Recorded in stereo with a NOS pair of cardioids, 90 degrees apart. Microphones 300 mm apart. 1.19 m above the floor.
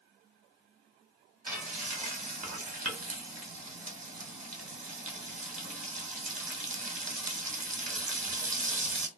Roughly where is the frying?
Ahead right.